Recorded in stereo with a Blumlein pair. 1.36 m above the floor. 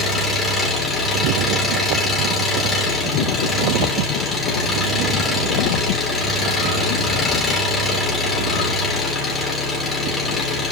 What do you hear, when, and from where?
0.0 s an engine running: 20° left, 2.5 m